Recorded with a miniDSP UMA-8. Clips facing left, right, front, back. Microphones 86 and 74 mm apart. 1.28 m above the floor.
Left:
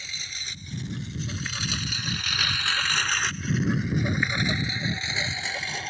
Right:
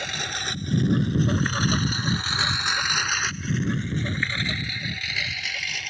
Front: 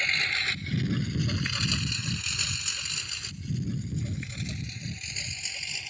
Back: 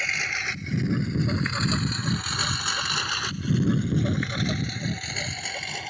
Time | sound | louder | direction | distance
0.0 | a lawn mower | right 10 dB, back 1 dB | 100° right | ?